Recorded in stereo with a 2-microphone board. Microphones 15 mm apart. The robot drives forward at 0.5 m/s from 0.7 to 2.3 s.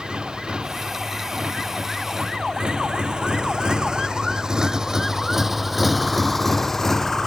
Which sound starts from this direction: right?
A motorcycle, at 0.0 s.